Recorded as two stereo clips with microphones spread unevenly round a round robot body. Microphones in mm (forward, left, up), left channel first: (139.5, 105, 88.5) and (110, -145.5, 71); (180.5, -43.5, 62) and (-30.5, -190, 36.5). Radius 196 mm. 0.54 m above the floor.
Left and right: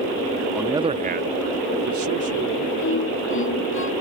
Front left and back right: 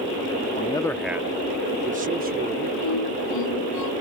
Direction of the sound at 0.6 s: 15° right.